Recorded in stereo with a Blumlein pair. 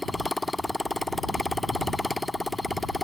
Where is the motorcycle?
5° left.